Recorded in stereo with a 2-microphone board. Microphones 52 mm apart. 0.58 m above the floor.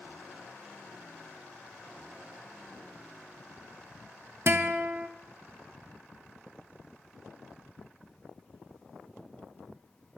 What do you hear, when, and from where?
4.5 s a guitar: 50° right (ahead or behind), 0.7 m